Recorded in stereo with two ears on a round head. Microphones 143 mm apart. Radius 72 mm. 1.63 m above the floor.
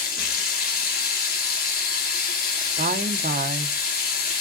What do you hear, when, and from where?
0.0 s running water: 65° left (ahead or behind), 2.5 m
2.8 s a woman speaking: 50° right (ahead or behind), 1.2 m